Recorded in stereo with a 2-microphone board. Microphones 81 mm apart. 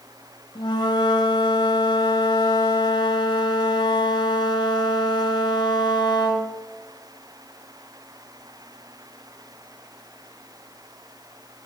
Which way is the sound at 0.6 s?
80° left.